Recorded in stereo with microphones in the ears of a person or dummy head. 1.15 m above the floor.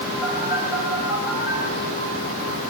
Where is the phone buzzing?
10° right (ahead or behind), 8.5 m.